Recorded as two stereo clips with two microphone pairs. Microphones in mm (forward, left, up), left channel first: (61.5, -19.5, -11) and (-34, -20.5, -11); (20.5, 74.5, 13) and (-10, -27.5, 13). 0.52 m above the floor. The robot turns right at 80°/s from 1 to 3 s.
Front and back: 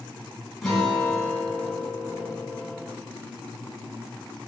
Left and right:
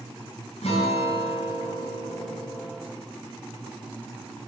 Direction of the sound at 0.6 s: 85° left.